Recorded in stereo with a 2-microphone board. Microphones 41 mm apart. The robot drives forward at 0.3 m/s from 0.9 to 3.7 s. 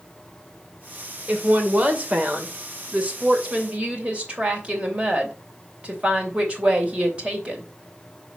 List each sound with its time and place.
1.3 s a woman speaking: 35° right (ahead or behind), 2 m; by 7.6 s 30° right (ahead or behind), 2.5 m